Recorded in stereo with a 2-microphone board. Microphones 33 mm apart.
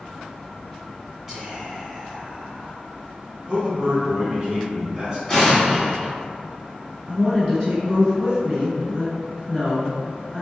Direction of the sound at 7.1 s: 20° right (ahead or behind).